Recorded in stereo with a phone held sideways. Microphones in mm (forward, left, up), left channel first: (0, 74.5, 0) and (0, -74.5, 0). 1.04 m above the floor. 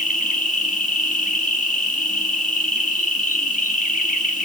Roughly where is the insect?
Left.